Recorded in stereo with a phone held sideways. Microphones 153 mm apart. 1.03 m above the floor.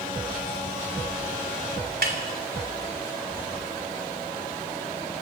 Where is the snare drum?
85° right, 3 m.